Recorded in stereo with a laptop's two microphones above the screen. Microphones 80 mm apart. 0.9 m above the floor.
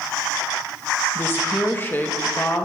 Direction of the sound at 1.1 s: 25° left (ahead or behind).